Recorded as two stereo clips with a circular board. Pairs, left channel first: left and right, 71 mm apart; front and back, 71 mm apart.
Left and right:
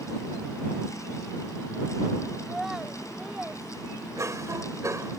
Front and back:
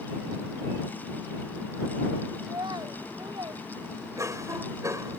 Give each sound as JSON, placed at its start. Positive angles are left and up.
{"t": 2.4, "sound": "a child speaking", "azimuth_deg": -175}
{"t": 4.2, "sound": "a cough", "azimuth_deg": -135}